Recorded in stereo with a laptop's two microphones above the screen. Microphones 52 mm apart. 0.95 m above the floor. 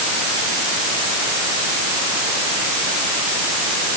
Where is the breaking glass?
No breaking glass in this recording.